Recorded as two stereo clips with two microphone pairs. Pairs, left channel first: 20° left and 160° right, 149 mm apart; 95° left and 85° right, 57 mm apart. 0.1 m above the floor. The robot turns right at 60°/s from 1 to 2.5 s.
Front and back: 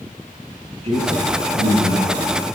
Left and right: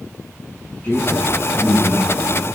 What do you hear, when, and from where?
0.8 s a man speaking: 150° left, 8.5 m; by 2.4 s 125° right, 8.5 m